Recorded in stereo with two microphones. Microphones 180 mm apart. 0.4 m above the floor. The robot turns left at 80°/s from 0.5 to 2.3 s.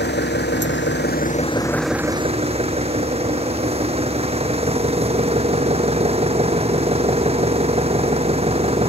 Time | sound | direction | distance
0.0 | an engine running | 110° left | ?